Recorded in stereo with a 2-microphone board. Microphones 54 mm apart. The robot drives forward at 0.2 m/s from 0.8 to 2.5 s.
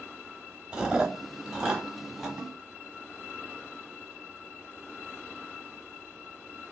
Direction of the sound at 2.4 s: 40° right (ahead or behind).